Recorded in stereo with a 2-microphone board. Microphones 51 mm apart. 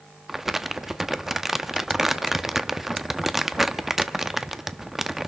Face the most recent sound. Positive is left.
turn(degrees=-5)  # may be behind; listen again after turning